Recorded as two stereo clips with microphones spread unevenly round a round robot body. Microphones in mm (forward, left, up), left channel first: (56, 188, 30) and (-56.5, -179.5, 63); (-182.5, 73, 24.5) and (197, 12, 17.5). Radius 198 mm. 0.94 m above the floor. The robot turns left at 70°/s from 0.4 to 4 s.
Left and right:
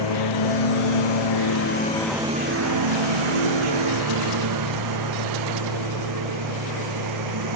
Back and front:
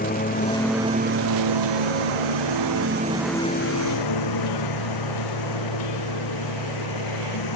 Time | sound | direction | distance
0.0 | a lawn mower | 100° left | ?